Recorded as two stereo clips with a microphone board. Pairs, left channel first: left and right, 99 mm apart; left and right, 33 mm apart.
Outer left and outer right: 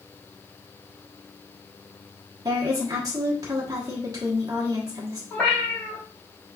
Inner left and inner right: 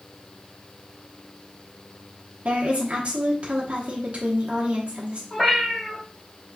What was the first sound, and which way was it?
A woman speaking, 35° right (ahead or behind).